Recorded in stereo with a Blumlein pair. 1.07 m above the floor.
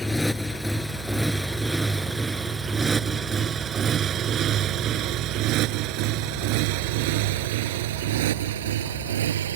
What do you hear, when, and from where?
0.0 s a motorcycle: 5° left; by 9.6 s 60° right